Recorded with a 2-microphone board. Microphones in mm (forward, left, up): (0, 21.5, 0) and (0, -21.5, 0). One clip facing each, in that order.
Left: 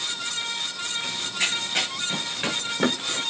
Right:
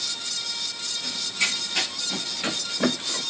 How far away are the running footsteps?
About 7 m.